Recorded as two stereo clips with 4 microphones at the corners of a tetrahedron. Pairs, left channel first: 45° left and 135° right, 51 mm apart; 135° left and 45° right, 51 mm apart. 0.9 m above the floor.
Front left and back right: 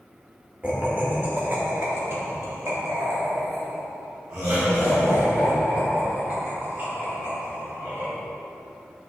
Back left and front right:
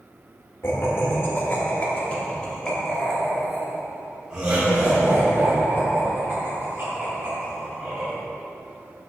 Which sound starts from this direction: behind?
Laughter, at 0.6 s.